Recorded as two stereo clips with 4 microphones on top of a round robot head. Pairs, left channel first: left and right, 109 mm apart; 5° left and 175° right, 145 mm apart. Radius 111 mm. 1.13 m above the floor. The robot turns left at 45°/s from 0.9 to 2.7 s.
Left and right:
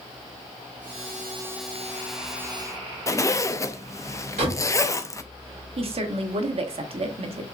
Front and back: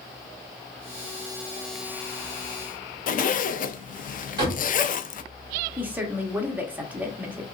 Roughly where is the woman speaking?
Right.